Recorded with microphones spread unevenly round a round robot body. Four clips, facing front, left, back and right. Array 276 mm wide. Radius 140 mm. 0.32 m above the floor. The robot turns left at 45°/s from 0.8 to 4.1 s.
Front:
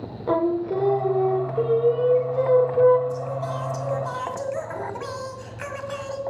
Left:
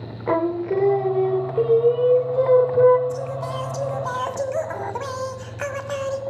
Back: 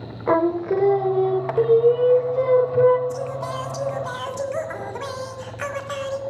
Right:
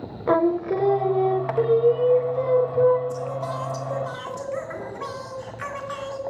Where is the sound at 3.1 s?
150° left, 1.5 m; by 6.2 s 105° left, 1.5 m.